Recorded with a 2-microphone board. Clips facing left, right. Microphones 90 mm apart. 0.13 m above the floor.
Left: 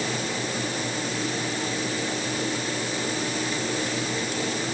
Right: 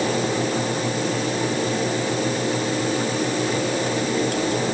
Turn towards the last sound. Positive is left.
No sound to turn to.